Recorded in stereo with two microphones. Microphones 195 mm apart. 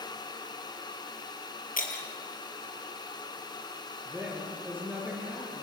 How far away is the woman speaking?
About 7 m.